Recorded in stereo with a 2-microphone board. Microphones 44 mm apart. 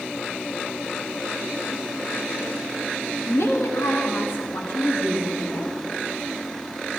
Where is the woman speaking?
65° left (ahead or behind), 1.5 m.